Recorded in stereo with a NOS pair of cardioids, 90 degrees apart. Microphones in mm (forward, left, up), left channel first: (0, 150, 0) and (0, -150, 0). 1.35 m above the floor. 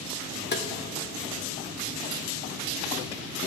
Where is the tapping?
35° left, 0.8 m.